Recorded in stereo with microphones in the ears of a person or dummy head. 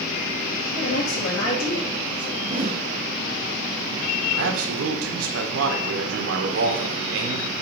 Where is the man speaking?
80° right, 1.5 m.